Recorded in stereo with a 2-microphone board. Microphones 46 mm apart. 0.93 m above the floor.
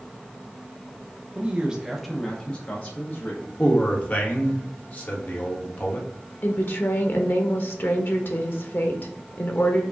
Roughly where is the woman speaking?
Left.